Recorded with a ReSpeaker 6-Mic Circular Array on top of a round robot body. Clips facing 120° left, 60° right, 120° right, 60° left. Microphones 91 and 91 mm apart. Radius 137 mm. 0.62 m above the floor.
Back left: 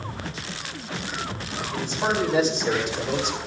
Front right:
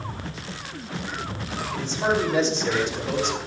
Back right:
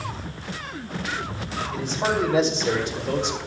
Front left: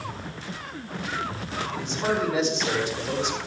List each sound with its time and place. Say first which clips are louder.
1.7 s a man speaking: front right 1 dB, back right 2 dB; 165° right, 3.5 m; by 3.4 s 155° right, 2.5 m